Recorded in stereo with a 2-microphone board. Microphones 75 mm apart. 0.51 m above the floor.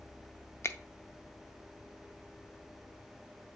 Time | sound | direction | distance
0.6 | a finger snap | 35° left (ahead or behind) | 0.6 m